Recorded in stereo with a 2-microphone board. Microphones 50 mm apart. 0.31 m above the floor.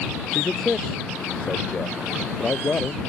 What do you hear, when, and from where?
0.3 s a man speaking: 5° left (ahead or behind); by 3.0 s 30° left (ahead or behind)